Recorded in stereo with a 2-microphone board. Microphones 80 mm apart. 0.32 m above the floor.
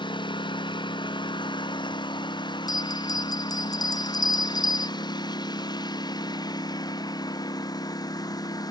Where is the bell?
55° left (ahead or behind).